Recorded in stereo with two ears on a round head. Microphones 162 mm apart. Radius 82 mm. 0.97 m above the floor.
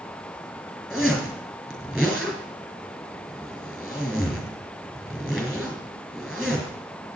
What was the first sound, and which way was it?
A zipper, 5° right (ahead or behind).